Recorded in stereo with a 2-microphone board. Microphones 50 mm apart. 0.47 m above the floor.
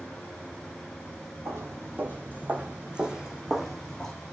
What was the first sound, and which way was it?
Footsteps, 50° right (ahead or behind).